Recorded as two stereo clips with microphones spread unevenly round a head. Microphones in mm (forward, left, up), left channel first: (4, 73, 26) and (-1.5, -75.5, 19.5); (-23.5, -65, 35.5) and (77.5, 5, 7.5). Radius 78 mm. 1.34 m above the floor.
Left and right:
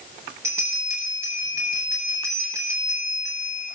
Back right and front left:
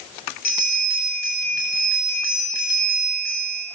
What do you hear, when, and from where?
0.4 s a bell: 165° right, 8.5 m